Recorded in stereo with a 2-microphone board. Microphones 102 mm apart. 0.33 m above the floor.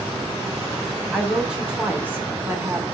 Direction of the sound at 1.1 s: 5° right (ahead or behind).